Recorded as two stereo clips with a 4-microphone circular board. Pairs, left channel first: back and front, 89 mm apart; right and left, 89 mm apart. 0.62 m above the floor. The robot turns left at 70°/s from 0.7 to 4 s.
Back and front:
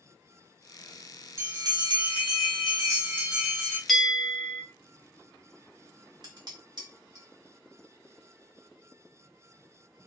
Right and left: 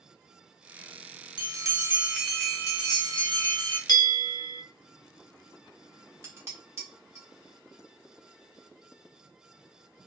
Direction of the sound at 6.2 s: 30° left.